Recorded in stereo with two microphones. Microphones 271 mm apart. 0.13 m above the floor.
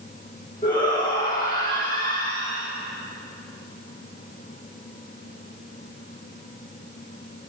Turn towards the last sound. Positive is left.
turn(degrees=30)  # may be behind; listen again after turning